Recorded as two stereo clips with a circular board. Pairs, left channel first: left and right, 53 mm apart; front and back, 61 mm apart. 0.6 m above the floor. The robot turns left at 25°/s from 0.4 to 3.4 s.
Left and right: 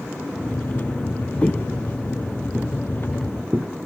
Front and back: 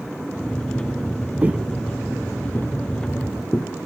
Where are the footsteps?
135° left, 0.7 m; by 3.7 s 60° right, 1.6 m.